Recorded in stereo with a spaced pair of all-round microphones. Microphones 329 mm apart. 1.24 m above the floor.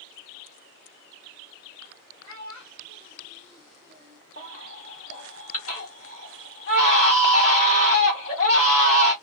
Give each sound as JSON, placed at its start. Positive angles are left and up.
{"t": 2.2, "sound": "a child speaking", "side_deg": 60, "distance_m": 1.4}
{"t": 4.4, "sound": "a baby crying", "side_deg": 45, "distance_m": 1.3}